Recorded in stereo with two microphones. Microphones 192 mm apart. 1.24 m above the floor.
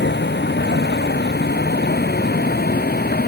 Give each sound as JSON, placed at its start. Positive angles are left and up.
{"t": 0.0, "sound": "a vehicle", "side_deg": 65}